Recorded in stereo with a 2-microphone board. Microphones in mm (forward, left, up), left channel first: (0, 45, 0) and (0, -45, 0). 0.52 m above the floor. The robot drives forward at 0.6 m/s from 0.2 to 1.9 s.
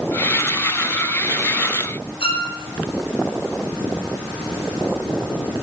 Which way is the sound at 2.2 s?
80° left.